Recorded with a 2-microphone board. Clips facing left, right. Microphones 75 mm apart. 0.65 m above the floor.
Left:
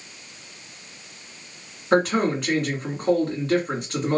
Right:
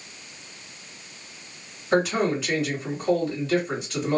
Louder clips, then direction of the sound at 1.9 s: Left 2 dB; 50° left (ahead or behind).